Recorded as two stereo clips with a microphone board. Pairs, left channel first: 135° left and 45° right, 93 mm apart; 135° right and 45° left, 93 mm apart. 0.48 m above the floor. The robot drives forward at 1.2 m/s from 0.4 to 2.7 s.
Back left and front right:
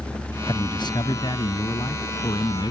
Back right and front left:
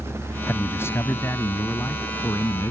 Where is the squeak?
No squeak in this recording.